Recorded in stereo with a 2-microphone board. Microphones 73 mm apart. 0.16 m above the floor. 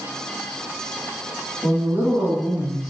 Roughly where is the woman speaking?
Centre.